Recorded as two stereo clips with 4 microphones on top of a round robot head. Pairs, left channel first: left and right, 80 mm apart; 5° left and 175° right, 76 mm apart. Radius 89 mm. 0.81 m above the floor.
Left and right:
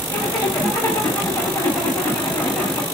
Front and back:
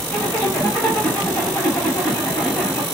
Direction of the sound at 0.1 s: 50° left.